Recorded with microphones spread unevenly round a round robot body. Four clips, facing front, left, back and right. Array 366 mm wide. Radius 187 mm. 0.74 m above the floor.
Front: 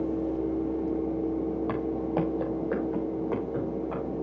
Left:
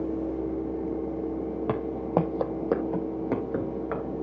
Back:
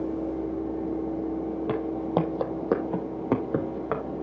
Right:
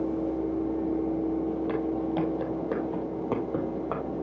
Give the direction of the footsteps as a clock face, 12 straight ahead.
8 o'clock.